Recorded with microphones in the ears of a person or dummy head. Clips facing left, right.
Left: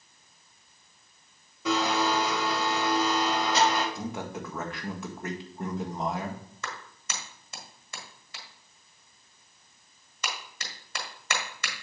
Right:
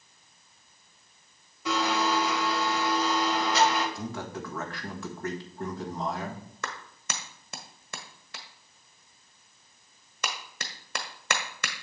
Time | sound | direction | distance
1.6 | a blender | 70° left (ahead or behind) | 2 m
4.0 | a man speaking | 15° left (ahead or behind) | 1.4 m
6.6 | a clap | 50° right (ahead or behind) | 1.1 m